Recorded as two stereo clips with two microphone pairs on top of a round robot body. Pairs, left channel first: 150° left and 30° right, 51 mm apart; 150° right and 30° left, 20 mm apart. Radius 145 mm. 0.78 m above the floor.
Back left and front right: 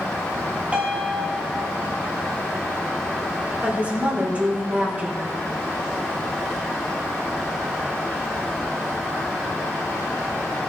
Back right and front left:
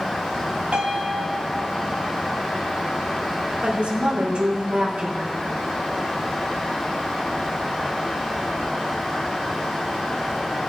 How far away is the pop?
I don't hear a pop.